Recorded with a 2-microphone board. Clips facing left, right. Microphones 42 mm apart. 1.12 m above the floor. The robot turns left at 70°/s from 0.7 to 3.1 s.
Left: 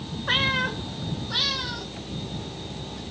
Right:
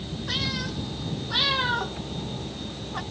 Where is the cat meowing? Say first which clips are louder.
Left 8 dB; 40° left (ahead or behind); by 3.0 s 55° right (ahead or behind).